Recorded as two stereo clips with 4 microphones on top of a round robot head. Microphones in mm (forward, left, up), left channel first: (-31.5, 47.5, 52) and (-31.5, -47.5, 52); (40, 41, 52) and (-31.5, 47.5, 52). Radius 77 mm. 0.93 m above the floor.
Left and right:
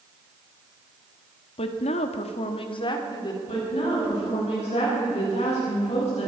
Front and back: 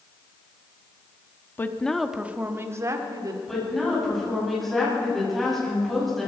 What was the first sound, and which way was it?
A woman speaking, 60° left.